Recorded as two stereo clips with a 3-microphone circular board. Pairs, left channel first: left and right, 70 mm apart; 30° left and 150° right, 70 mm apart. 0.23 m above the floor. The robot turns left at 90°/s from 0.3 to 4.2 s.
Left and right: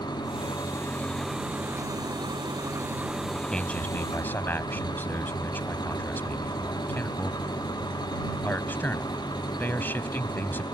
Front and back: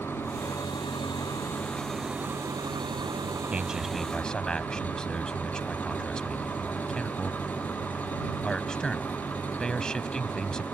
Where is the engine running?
90° left; by 10.7 s 95° left.